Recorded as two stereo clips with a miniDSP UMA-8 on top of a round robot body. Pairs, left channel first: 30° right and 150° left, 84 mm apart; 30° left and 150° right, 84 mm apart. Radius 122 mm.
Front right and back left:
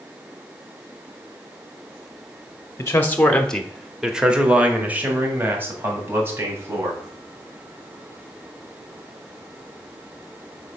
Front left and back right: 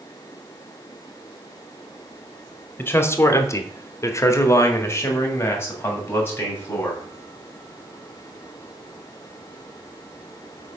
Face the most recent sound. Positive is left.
turn(degrees=95)